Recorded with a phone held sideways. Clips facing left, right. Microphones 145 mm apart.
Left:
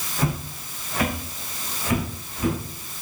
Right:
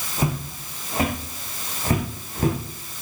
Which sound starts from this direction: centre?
Footsteps, at 0.2 s.